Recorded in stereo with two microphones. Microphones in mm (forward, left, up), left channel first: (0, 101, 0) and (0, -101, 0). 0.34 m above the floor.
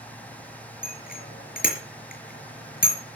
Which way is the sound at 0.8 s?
45° left (ahead or behind).